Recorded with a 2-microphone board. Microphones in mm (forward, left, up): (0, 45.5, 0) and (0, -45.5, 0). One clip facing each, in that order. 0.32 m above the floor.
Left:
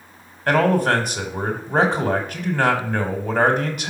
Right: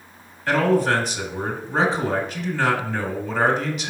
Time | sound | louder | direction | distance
0.5 | a man speaking | left 1 dB | 55° left (ahead or behind) | 1.5 m